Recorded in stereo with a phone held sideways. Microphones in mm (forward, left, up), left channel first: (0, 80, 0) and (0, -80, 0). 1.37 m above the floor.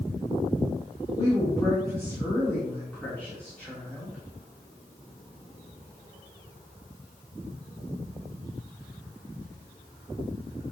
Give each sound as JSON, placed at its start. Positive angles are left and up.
{"t": 1.1, "sound": "a woman speaking", "side_deg": 25, "distance_m": 4.5}